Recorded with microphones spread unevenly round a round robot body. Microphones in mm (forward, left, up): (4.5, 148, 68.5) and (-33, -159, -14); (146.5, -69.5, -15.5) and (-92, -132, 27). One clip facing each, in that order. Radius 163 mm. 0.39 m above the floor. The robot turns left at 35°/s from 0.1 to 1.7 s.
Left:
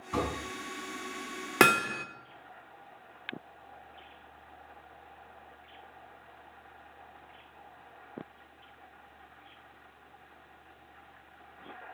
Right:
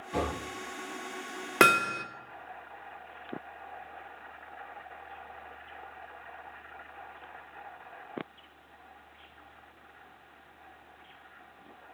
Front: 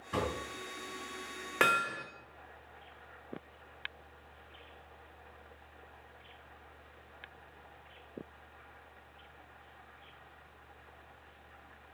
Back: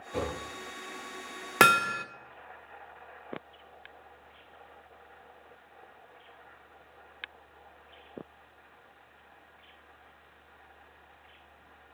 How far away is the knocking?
About 3 m.